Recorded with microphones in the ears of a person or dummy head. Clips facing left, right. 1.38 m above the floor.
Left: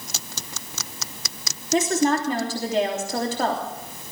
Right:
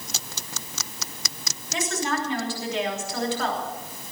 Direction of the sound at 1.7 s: 40° left (ahead or behind).